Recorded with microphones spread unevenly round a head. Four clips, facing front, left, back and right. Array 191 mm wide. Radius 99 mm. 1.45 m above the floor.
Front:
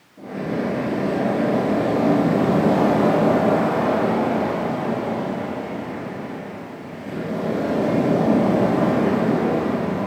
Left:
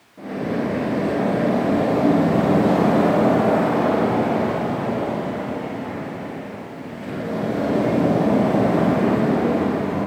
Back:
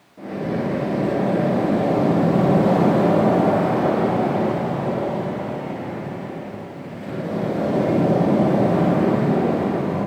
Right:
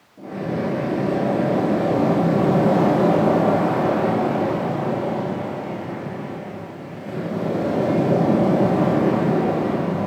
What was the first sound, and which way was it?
Only background noise.